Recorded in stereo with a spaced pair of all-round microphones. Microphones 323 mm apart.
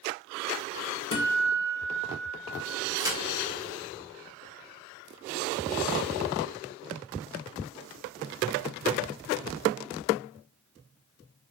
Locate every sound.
1.1 s a guitar: 70° left (ahead or behind), 0.6 m
3.0 s a crack: 10° right (ahead or behind), 0.6 m